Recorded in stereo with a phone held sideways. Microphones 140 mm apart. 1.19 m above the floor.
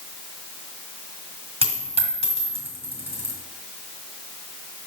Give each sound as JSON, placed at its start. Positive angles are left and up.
{"t": 1.6, "sound": "a dropped coin", "side_deg": -45, "distance_m": 2.5}